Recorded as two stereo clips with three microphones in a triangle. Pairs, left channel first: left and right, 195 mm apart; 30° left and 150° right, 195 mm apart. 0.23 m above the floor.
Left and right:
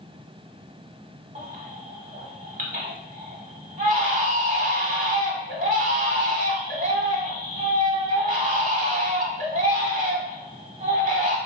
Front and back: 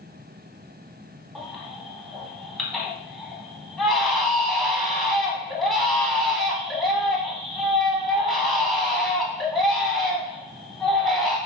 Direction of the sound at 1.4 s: 60° right.